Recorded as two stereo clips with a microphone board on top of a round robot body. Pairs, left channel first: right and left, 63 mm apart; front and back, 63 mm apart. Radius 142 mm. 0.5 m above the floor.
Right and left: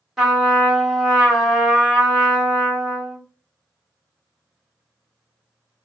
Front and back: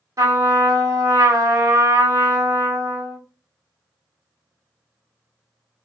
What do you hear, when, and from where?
0.2 s a trumpet: 170° left, 2 m